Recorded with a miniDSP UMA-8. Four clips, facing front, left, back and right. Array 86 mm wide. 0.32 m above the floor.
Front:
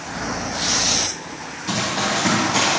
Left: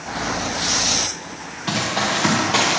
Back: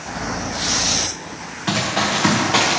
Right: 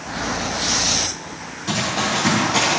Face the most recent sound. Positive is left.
turn(degrees=145)